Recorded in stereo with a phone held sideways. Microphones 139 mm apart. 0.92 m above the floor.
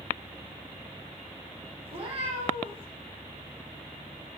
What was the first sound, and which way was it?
A cat meowing, 45° right (ahead or behind).